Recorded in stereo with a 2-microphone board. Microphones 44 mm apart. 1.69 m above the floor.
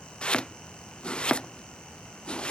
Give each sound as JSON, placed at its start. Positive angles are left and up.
{"t": 0.2, "sound": "chopping", "side_deg": 25}